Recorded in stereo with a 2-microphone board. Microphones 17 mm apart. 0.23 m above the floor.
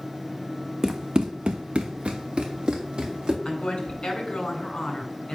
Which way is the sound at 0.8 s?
35° right (ahead or behind).